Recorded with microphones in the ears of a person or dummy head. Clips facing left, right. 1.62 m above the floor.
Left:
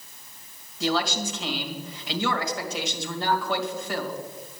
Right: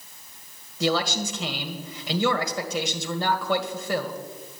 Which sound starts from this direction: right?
A man speaking, at 0.8 s.